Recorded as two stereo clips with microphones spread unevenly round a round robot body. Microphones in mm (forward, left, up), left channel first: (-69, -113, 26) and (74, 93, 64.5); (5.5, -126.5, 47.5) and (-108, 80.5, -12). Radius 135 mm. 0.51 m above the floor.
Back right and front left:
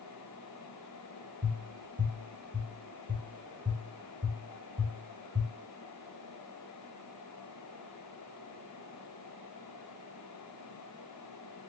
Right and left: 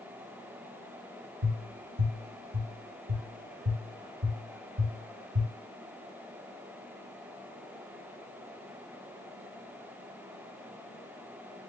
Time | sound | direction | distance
1.4 | tapping | 155° left | 1.7 m